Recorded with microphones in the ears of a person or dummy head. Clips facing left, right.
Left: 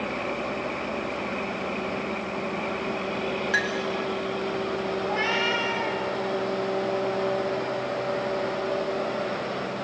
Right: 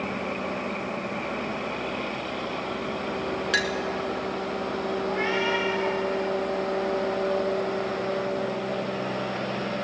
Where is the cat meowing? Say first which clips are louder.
Right 1 dB; 55° left (ahead or behind), 5.5 m.